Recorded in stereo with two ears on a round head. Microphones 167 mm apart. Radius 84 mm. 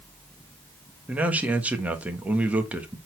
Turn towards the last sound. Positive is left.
turn(degrees=-10)  # may be behind; listen again after turning